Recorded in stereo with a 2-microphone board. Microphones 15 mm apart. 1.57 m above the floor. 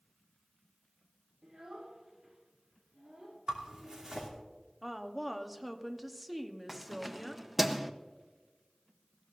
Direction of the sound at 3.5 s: 50° right (ahead or behind).